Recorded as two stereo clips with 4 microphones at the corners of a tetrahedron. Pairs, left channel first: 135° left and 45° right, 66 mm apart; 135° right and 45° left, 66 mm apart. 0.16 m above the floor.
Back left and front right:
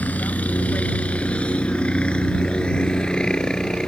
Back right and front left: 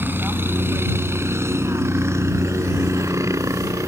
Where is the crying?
No crying in this recording.